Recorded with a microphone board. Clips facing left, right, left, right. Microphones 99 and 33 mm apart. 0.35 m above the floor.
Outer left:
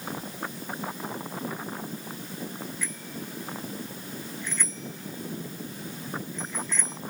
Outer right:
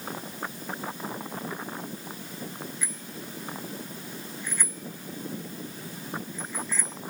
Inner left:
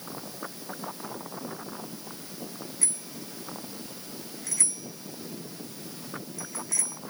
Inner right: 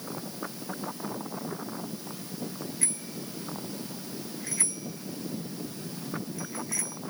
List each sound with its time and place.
2.8 s a bicycle bell: 15° right (ahead or behind); by 7.0 s 5° right (ahead or behind)